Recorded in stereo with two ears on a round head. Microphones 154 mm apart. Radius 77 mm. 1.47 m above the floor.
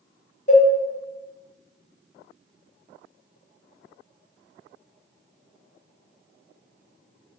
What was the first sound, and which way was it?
A cowbell, 40° left (ahead or behind).